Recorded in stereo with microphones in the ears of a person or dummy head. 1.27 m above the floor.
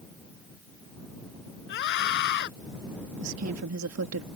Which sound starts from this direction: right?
A woman speaking, at 3.2 s.